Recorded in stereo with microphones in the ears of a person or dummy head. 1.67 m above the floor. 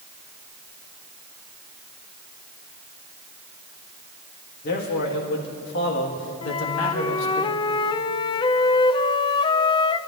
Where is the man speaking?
60° left (ahead or behind), 3 m; by 7.4 s 80° left, 2.5 m.